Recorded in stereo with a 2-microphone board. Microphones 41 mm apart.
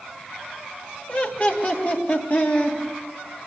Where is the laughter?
35° left (ahead or behind), 3 m; by 2.8 s 50° left (ahead or behind), 4.5 m.